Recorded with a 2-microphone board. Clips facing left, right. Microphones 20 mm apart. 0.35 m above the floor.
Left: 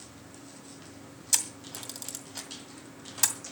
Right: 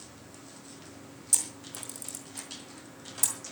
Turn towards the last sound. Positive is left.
turn(degrees=50)  # may be behind; listen again after turning